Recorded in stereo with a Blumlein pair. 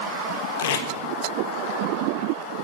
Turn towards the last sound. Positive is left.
turn(degrees=60)